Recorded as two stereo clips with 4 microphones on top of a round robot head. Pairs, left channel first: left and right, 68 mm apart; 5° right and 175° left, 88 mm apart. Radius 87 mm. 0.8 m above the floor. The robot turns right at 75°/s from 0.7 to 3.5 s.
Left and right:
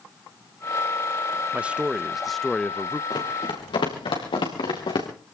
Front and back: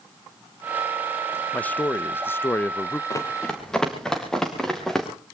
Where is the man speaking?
55° right, 0.5 m; by 3.0 s 55° left, 0.5 m.